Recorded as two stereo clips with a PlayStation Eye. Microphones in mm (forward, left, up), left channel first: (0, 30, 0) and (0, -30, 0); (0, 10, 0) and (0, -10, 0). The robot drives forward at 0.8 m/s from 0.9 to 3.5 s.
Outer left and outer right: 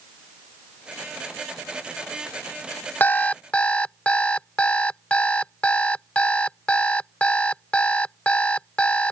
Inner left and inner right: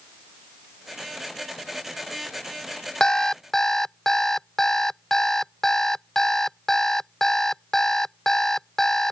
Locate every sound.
3.0 s an alarm clock: 30° left (ahead or behind); by 9.1 s 20° left (ahead or behind)